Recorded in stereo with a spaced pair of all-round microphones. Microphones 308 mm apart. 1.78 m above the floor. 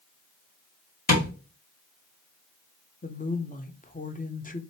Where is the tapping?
30° left (ahead or behind), 1.9 m.